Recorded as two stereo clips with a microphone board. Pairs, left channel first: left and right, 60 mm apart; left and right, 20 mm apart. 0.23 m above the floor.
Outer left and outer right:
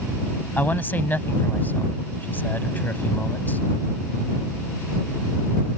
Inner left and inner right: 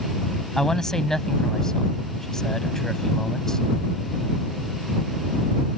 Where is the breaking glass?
I don't hear breaking glass.